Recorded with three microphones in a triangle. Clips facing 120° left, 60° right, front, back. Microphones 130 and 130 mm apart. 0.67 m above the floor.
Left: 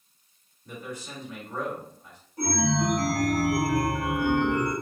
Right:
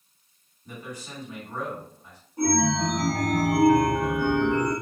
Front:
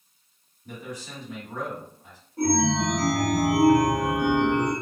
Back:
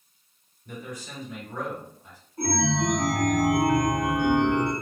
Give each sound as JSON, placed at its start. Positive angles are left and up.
{"t": 0.7, "sound": "a man speaking", "azimuth_deg": 10, "distance_m": 2.0}
{"t": 2.4, "sound": "a chime", "azimuth_deg": 10, "distance_m": 1.4}